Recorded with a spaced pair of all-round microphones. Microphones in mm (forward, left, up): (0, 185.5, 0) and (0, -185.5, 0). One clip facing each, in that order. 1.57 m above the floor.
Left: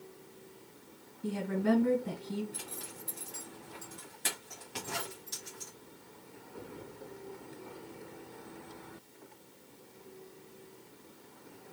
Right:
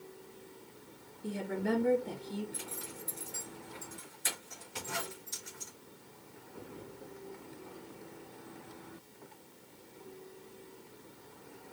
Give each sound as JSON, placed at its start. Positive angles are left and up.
{"t": 1.2, "sound": "a woman speaking", "side_deg": 75, "distance_m": 2.0}
{"t": 2.5, "sound": "a zipper", "side_deg": 65, "distance_m": 2.5}